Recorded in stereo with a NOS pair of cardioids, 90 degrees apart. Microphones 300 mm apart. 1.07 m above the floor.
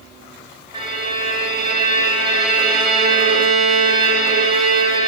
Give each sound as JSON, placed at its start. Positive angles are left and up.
{"t": 0.7, "sound": "a violin", "azimuth_deg": -15, "distance_m": 0.7}